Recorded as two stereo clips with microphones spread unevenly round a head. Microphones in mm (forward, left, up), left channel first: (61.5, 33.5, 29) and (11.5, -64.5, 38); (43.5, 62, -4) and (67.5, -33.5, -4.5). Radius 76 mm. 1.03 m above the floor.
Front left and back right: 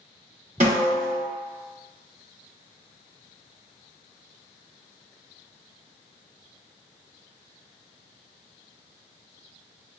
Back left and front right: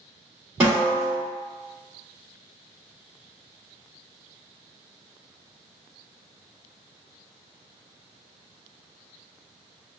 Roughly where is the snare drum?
Behind.